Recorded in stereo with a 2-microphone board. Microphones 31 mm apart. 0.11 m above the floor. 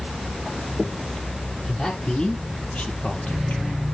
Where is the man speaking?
30° left (ahead or behind), 3.5 m; by 3.9 s 55° left (ahead or behind), 2 m.